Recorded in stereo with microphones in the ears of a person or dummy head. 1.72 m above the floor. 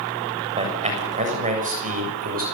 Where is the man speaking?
25° right (ahead or behind), 7 m; by 2.4 s 35° right (ahead or behind), 7 m.